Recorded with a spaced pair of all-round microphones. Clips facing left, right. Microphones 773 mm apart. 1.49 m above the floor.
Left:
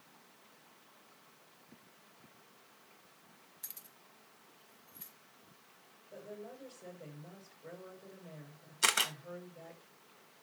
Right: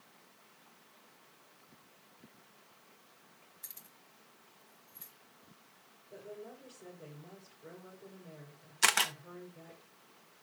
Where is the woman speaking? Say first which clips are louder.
Even; 55° right (ahead or behind), 6 m.